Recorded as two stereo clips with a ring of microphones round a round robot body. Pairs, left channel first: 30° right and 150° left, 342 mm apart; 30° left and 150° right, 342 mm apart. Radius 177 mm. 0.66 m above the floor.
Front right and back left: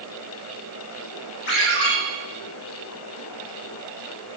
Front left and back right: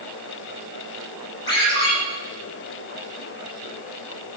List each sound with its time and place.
1.5 s a ringtone: 50° right, 6.5 m